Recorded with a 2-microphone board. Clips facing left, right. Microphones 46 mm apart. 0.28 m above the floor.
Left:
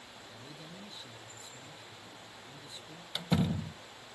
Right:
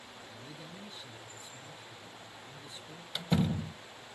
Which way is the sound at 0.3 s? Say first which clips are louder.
Right 1 dB; 5° right (ahead or behind).